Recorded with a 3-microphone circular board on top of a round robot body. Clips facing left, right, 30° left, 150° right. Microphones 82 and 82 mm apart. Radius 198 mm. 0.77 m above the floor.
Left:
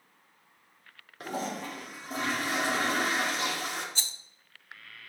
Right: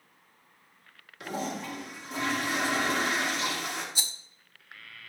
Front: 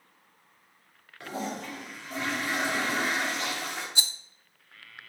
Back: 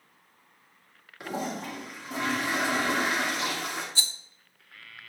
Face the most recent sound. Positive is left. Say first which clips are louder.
# right 1 dB, front 1 dB
turn(degrees=-25)